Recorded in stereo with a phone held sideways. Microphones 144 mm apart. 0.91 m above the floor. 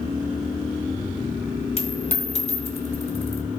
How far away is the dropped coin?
About 1.4 m.